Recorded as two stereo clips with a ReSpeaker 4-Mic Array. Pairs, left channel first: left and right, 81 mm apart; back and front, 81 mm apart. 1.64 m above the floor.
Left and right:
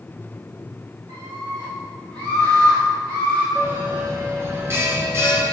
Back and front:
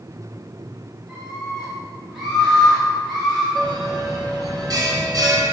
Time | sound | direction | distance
1.1 | a scream | 80° right | 4 m
3.5 | a bell | 35° right | 2 m